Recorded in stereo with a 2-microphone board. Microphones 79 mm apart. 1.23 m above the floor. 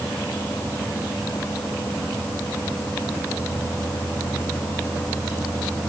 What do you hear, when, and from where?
Only background noise.